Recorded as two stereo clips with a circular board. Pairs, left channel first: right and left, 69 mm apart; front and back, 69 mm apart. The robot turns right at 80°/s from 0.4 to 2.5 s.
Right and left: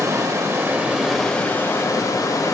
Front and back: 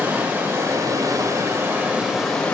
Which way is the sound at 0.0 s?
120° left.